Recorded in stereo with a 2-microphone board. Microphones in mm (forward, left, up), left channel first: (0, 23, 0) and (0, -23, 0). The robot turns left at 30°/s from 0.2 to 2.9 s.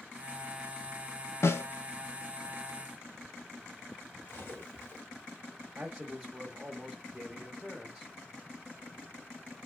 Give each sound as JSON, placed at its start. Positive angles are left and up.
{"t": 1.4, "sound": "a snare drum", "side_deg": 70, "distance_m": 0.5}
{"t": 4.3, "sound": "cutlery clinking", "side_deg": 50, "distance_m": 1.5}
{"t": 5.8, "sound": "a man speaking", "side_deg": -5, "distance_m": 0.9}